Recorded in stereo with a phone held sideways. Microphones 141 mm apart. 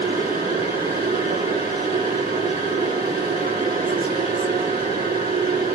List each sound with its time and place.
0.0 s a machine running: 85° right, 6.5 m